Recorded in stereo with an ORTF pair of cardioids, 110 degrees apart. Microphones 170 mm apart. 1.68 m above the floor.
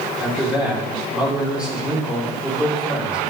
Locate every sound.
0.2 s a man speaking: 5° right, 6.5 m